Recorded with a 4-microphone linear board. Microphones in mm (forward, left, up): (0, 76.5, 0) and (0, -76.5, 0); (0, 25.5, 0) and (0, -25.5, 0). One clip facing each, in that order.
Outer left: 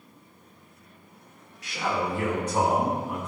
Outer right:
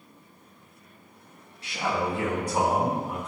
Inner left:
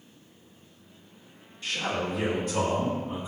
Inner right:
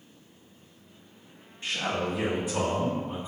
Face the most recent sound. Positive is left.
turn(degrees=10)  # may be behind; listen again after turning